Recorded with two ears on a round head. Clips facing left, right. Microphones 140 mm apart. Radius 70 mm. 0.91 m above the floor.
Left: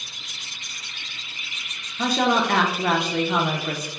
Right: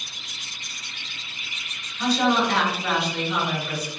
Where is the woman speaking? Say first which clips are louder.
Even; 45° left (ahead or behind), 0.6 m.